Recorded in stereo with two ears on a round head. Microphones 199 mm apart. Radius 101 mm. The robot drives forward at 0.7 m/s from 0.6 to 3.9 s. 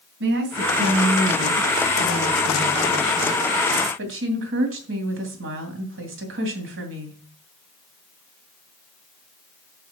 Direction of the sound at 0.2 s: 55° right (ahead or behind).